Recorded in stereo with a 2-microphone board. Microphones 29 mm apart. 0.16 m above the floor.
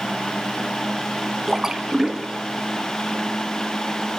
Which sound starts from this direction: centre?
A splash, at 1.5 s.